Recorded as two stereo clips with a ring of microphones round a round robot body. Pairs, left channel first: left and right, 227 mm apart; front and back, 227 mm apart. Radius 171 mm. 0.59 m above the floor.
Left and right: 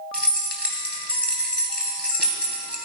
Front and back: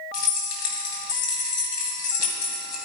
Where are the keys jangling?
5° left, 2.5 m.